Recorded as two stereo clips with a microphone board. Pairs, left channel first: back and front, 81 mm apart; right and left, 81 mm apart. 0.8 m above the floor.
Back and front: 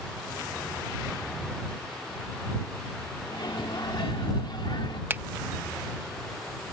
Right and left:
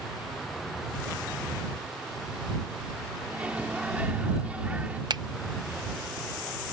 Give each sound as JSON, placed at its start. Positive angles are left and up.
{"t": 3.2, "sound": "a microwave", "azimuth_deg": 160}
{"t": 5.1, "sound": "a finger snap", "azimuth_deg": 65}